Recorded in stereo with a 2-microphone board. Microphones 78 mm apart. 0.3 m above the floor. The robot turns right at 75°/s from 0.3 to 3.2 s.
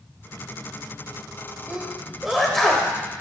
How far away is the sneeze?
About 0.9 m.